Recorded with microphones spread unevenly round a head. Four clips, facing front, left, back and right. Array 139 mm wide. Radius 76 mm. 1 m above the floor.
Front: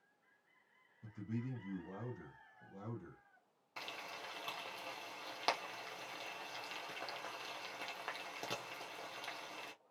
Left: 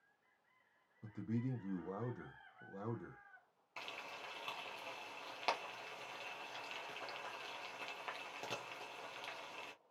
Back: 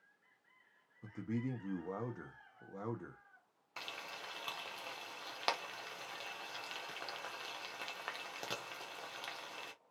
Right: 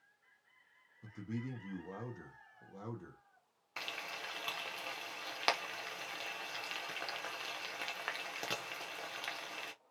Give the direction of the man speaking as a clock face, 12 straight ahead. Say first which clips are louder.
Left 1 dB, back 4 dB; 6 o'clock.